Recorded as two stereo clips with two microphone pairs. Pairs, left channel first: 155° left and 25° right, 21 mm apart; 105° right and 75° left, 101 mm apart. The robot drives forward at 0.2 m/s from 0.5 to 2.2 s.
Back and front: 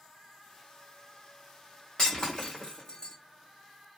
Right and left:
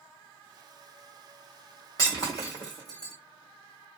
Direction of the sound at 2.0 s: 155° right.